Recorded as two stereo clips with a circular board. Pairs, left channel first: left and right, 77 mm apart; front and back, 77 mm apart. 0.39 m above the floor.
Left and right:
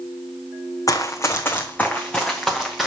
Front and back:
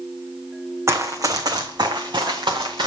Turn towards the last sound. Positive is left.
turn(degrees=180)